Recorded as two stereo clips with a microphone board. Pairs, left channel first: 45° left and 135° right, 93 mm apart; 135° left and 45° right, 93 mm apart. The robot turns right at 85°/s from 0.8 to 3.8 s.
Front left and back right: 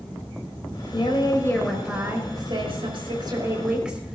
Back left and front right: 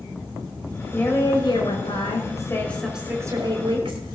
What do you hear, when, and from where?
0.9 s a woman speaking: 60° left, 4.5 m; by 4.2 s 55° right, 4.5 m